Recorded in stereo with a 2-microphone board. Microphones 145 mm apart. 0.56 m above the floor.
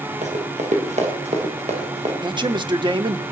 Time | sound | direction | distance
0.2 | running footsteps | 60° right (ahead or behind) | 8.5 m
2.2 | a man speaking | 35° right (ahead or behind) | 1.1 m